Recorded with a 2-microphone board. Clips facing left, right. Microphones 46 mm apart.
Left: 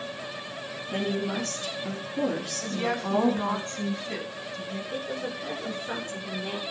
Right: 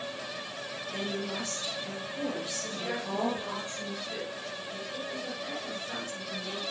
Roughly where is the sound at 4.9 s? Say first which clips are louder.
Left 4 dB; left.